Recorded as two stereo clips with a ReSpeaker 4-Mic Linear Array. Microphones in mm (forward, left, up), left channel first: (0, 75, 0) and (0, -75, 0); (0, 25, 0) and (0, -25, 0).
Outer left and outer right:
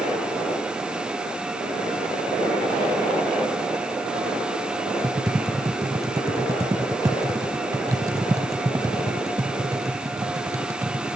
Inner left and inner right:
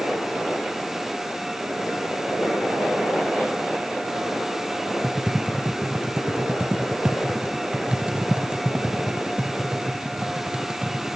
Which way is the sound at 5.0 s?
25° right (ahead or behind).